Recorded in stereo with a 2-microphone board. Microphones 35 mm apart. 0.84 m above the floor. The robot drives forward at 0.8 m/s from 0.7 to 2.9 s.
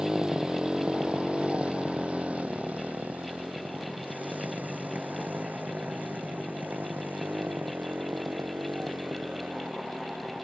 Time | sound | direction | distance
0.0 | a motorcycle | 25° right (ahead or behind) | ?